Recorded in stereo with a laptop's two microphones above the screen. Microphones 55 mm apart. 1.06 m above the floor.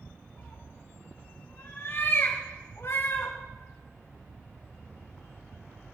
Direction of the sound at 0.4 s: 45° left (ahead or behind).